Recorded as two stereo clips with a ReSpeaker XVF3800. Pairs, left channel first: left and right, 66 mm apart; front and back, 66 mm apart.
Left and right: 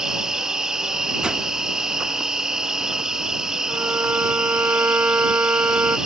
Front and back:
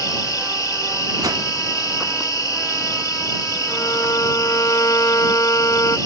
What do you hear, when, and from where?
0.0 s an insect: 10° right
1.2 s a whoosh: 165° right
3.7 s a violin: 35° right